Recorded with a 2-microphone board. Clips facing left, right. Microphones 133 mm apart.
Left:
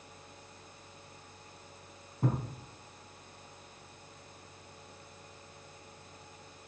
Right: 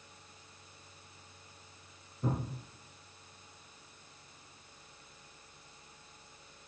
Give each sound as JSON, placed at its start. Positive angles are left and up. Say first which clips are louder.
{"t": 2.2, "sound": "a thud", "louder": "left 2 dB", "side_deg": 70, "distance_m": 4.5}